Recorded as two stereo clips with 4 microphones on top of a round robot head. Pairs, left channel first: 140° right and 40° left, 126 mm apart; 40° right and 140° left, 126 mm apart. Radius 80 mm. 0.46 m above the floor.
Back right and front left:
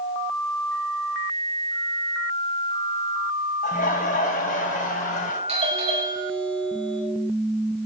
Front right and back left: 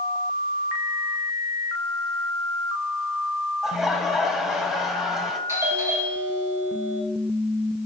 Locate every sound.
3.6 s laughter: 135° right, 3 m
5.5 s a doorbell: 70° left, 4 m